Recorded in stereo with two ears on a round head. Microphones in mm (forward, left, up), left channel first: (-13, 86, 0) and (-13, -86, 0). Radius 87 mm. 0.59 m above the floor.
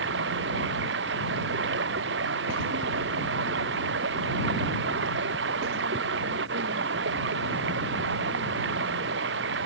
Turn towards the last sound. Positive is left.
turn(degrees=-65)  # may be behind; listen again after turning